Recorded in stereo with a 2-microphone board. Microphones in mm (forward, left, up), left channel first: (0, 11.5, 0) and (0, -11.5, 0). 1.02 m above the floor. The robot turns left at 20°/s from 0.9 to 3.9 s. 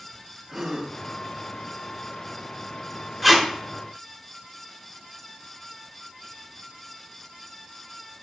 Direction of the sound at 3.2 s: 5° left (ahead or behind).